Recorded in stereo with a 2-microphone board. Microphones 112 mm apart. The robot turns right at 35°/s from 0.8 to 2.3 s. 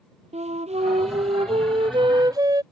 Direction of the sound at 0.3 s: 85° right.